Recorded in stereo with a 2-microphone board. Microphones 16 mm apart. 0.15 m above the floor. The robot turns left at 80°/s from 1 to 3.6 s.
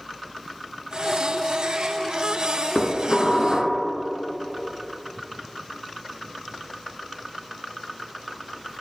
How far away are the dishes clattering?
About 1.0 m.